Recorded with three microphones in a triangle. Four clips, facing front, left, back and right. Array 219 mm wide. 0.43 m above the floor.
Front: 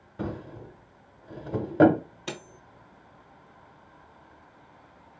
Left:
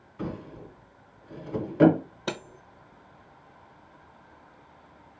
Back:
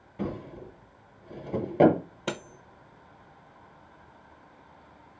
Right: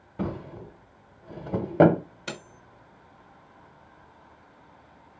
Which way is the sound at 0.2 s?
75° right.